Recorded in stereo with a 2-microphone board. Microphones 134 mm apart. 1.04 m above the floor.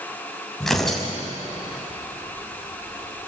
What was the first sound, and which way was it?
Tearing paper, centre (ahead or behind).